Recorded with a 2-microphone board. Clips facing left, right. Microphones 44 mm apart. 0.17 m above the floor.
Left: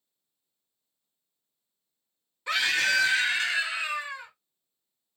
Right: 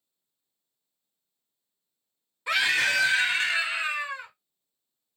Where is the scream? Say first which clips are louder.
Right 1 dB; 10° right (ahead or behind), 1.7 m; by 4.3 s 35° right (ahead or behind), 2 m.